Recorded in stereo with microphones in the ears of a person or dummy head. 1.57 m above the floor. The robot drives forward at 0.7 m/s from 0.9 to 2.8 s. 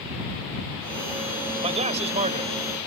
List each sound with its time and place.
1.6 s a man speaking: 30° right (ahead or behind); by 2.5 s 35° right (ahead or behind)